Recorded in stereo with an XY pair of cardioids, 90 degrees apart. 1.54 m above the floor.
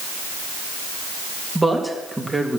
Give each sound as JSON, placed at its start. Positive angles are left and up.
{"t": 1.6, "sound": "a man speaking", "azimuth_deg": -15, "distance_m": 3.0}